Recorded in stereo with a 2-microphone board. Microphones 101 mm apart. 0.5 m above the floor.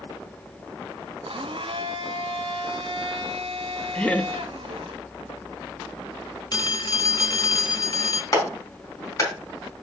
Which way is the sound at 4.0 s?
10° left (ahead or behind).